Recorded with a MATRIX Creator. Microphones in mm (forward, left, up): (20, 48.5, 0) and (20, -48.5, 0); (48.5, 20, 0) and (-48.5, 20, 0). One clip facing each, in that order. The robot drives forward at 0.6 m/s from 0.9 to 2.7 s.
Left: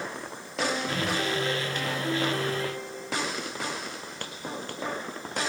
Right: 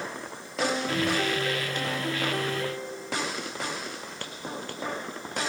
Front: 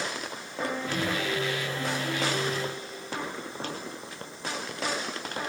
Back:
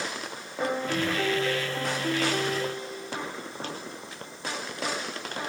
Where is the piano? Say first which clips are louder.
Right 2 dB, back 3 dB; 150° right, 1.1 m; by 3.3 s 170° right, 2.0 m.